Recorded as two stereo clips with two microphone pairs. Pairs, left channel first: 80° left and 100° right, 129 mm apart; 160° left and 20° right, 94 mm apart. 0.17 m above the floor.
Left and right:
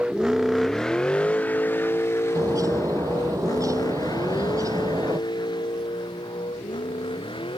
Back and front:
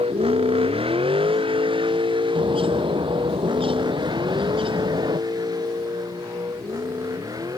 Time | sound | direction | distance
0.0 | a vehicle | 20° right | ?
2.4 | a bird | 35° right | ?